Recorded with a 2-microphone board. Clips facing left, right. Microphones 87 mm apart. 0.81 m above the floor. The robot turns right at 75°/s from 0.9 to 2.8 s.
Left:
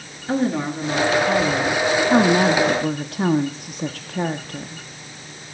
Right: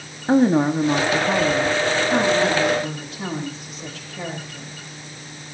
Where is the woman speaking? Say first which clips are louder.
Right 6 dB; 40° right, 1.4 m; by 4.8 s 105° left, 1.4 m.